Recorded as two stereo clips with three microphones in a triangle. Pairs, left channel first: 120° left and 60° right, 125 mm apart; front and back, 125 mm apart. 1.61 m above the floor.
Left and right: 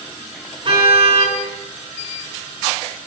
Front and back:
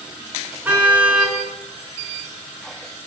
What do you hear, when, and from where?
0.7 s a car horn: 105° right, 8 m